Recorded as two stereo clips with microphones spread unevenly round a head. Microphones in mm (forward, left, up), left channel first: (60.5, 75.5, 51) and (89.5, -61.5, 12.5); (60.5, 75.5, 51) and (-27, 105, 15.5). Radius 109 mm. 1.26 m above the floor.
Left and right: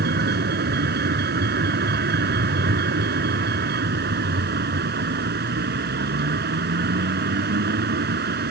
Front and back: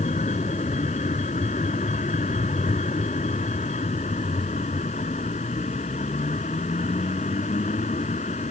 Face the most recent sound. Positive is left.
turn(degrees=-70)